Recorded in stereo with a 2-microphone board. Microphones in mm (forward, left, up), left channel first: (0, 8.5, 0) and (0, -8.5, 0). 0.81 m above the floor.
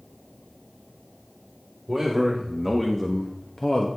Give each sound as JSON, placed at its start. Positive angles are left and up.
{"t": 1.9, "sound": "a man speaking", "side_deg": -20, "distance_m": 1.6}